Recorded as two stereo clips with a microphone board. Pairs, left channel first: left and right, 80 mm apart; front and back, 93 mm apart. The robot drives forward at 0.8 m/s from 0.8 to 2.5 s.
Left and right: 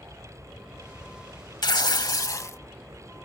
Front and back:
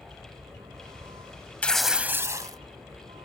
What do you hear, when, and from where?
0.0 s a vehicle: 175° left
1.6 s tearing paper: 75° left; by 2.6 s 135° left